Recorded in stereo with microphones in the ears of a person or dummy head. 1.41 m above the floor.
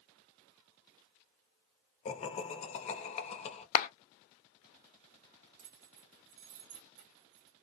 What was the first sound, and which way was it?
Laughter, 30° left (ahead or behind).